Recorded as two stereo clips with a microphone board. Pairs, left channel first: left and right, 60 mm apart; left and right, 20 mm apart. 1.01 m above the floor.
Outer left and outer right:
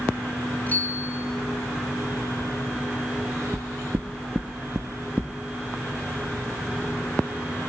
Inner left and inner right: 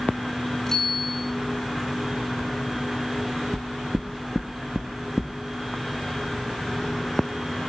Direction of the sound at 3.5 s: 35° right (ahead or behind).